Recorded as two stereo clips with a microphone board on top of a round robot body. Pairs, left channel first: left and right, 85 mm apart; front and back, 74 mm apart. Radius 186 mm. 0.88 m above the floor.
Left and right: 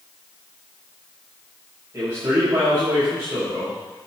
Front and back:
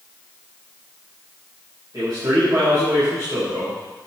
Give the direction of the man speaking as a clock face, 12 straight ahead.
5 o'clock.